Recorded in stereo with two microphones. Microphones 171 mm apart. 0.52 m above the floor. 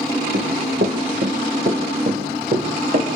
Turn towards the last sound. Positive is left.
turn(degrees=-55)  # may be behind; listen again after turning